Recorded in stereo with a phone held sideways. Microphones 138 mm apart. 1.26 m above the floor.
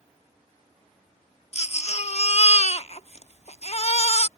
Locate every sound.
1.5 s a baby crying: 50° left (ahead or behind)